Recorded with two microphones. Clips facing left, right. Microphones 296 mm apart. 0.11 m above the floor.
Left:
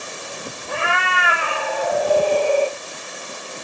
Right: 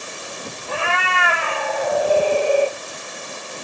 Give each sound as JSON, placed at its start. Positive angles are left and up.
{"t": 0.7, "sound": "a cat meowing", "side_deg": 25, "distance_m": 1.5}